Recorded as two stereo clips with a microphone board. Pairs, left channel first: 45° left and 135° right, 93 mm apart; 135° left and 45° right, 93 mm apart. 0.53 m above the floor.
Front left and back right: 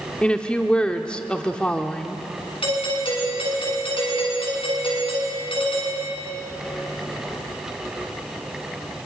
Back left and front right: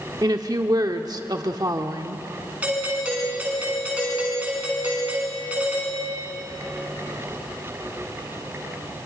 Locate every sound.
0.2 s a woman speaking: 30° right, 1.0 m
2.6 s a doorbell: 30° left, 7.5 m